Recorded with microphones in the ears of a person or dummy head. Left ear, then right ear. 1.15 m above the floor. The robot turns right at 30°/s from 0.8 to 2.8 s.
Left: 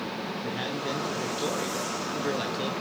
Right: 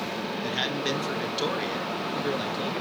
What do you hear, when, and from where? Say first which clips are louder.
0.4 s a man speaking: right 5 dB; 50° right, 1.9 m; by 2.7 s 10° left, 1.9 m